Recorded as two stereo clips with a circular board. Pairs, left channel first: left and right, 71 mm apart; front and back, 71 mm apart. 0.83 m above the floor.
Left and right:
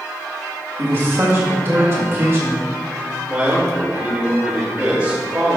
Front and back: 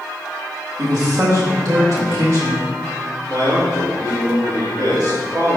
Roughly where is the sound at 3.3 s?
Behind.